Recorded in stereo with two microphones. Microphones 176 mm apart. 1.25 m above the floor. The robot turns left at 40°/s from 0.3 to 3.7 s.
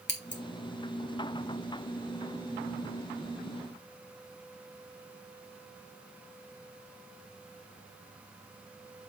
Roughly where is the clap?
No clap in this recording.